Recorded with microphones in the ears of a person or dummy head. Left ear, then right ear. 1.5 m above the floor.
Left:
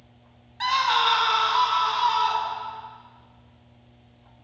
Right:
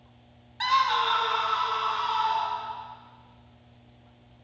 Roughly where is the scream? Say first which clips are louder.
Left 2 dB; centre.